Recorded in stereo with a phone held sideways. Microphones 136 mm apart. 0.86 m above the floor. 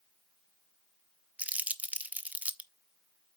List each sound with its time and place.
1.4 s crumpling: 10° right (ahead or behind), 0.7 m